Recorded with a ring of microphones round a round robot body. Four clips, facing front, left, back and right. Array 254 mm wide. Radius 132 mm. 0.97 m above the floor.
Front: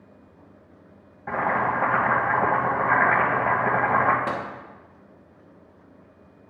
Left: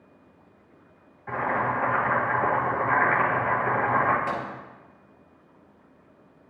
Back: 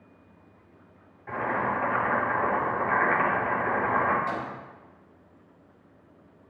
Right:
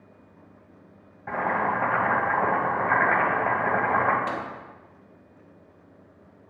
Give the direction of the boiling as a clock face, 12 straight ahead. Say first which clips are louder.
Right 1 dB, front 4 dB; 1 o'clock.